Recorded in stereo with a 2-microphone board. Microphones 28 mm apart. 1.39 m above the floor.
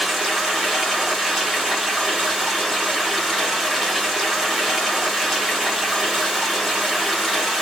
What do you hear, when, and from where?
0.0 s running water: 10° right (ahead or behind), 1.8 m